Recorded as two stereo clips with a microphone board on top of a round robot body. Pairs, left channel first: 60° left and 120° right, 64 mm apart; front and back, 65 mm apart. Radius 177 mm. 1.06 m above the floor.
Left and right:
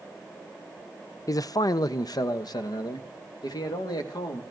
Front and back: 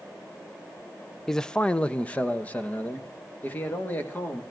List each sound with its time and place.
1.3 s a man speaking: 85° left, 0.5 m; by 4.4 s 65° left, 2.5 m